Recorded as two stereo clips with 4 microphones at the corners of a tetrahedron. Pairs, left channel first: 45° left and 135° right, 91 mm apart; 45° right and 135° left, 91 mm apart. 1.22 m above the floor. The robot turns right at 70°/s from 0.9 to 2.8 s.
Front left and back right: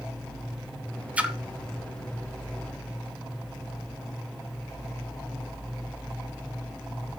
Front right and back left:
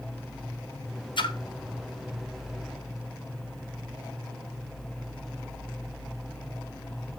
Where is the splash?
60° right, 0.8 m; by 1.4 s 45° right, 0.8 m.